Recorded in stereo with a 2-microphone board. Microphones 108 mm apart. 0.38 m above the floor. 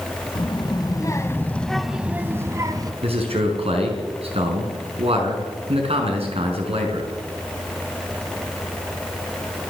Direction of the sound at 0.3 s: 55° left (ahead or behind).